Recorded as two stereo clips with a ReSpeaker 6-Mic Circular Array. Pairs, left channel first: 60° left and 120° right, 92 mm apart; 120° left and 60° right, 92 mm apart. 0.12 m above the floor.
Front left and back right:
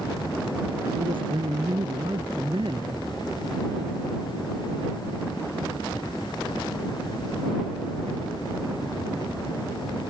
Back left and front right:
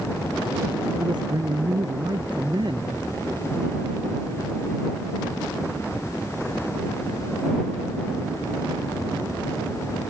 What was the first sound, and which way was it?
A man speaking, 95° right.